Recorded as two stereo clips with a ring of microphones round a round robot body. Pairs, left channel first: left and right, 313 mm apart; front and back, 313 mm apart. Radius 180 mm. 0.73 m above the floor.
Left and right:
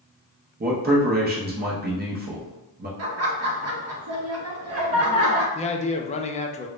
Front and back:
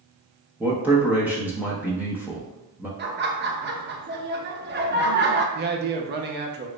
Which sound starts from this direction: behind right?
Laughter, at 3.0 s.